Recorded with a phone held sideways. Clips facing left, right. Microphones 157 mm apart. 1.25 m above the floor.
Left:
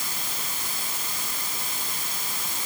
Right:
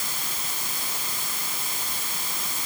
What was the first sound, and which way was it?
Only background noise.